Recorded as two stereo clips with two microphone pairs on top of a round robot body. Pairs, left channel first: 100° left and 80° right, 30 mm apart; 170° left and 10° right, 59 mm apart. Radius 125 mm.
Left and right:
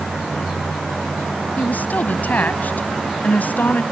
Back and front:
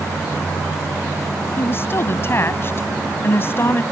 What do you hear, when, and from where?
1.6 s a woman speaking: 125° left